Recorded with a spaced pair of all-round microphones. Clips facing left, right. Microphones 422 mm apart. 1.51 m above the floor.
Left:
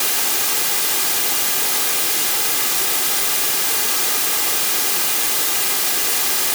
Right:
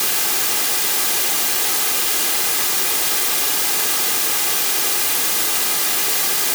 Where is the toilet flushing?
I don't hear a toilet flushing.